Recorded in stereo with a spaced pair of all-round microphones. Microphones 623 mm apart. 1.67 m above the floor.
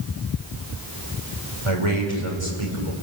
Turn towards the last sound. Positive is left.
turn(degrees=-55)  # may be behind; listen again after turning